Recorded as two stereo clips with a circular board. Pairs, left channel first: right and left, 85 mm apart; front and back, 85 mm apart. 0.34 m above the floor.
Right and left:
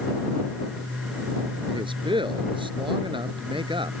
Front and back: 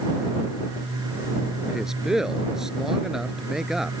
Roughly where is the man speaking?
Left.